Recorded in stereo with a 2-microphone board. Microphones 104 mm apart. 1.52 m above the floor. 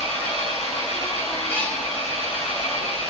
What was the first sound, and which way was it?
An engine running, 80° left.